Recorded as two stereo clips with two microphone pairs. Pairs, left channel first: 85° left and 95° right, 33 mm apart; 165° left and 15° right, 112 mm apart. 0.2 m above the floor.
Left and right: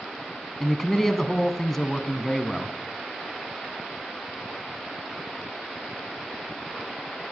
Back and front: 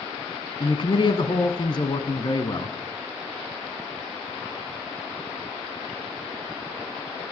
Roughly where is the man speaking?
Behind.